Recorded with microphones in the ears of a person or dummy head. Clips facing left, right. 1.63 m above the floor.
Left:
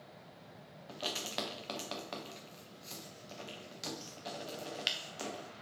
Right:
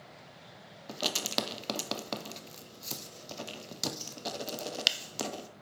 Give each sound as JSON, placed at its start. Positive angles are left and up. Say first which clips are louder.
{"t": 0.9, "sound": "writing", "louder": "right 6 dB", "side_deg": -60, "distance_m": 0.6}